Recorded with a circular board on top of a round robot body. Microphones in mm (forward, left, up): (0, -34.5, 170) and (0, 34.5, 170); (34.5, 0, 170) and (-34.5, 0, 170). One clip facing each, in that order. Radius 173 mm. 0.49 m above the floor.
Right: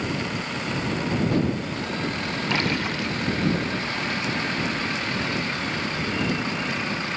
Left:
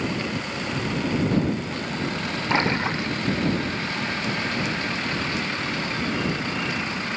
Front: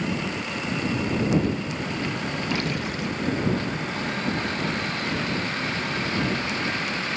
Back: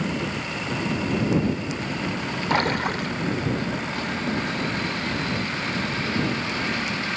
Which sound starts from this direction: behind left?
A splash, at 2.5 s.